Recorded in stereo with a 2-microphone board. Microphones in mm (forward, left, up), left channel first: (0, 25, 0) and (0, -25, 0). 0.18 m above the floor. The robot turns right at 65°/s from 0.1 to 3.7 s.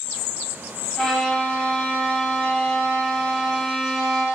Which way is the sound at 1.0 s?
10° left (ahead or behind).